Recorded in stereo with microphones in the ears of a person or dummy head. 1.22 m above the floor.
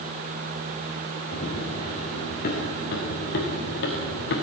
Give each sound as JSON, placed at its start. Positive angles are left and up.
{"t": 1.3, "sound": "running footsteps", "side_deg": 55, "distance_m": 6.0}